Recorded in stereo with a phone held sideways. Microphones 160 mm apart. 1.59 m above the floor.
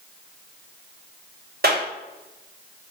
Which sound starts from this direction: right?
A clap, at 1.6 s.